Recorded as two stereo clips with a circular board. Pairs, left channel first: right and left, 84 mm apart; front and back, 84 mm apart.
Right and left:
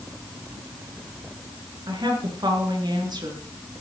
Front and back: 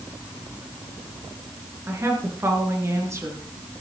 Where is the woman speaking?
120° left, 5 m.